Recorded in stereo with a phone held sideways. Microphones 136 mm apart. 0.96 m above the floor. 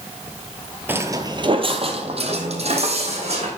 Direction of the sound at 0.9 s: 15° right (ahead or behind).